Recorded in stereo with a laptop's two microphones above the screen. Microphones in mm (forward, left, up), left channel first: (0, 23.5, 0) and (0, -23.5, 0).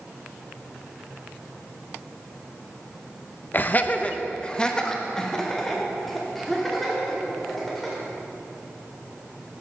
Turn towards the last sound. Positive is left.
turn(degrees=0)  # may be behind; listen again after turning